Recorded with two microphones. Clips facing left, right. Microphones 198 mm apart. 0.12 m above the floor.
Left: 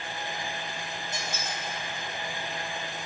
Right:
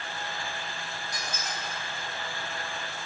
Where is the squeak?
25° left (ahead or behind), 2 m.